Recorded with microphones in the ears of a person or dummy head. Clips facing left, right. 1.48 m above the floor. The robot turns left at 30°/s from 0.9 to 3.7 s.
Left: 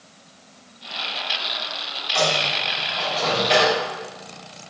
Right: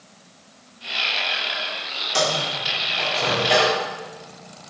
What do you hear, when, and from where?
2.1 s a microwave: 45° right (ahead or behind), 3.5 m; by 3.8 s centre (ahead or behind), 3.5 m